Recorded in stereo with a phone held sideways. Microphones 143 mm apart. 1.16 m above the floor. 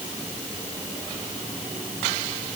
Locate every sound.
Only background noise.